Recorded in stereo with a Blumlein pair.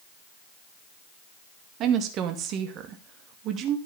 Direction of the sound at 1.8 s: 35° right.